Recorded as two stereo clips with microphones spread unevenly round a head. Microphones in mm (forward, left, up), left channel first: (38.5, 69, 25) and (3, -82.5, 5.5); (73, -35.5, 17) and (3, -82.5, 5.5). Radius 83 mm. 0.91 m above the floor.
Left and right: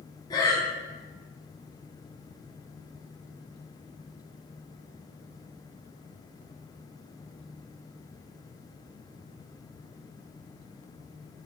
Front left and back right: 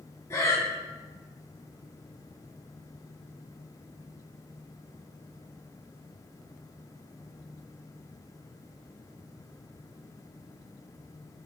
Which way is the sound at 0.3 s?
35° left.